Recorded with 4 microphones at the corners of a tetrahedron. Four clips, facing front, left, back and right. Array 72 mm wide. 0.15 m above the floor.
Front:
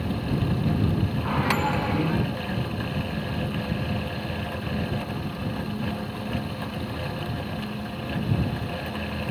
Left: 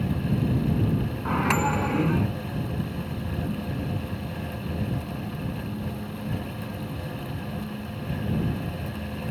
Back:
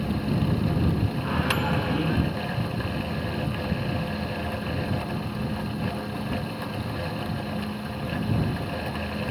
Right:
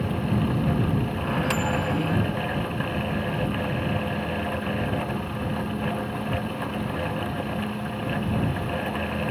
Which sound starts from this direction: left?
A microwave, at 1.2 s.